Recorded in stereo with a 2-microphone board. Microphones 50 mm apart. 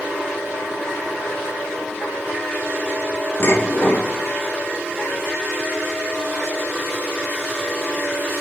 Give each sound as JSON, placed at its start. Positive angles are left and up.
{"t": 3.4, "sound": "dishes clattering", "side_deg": 55, "distance_m": 1.5}